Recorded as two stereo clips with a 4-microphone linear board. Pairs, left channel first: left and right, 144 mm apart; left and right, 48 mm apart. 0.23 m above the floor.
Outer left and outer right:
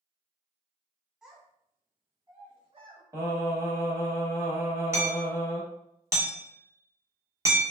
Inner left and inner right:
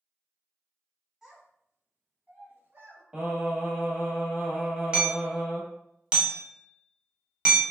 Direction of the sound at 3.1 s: 20° right (ahead or behind).